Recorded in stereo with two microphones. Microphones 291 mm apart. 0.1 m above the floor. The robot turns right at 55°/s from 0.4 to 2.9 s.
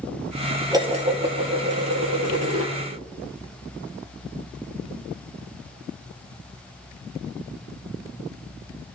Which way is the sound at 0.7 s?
165° right.